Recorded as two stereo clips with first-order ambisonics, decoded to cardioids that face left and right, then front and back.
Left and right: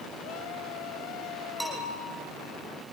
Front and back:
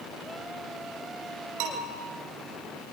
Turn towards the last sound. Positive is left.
turn(degrees=-170)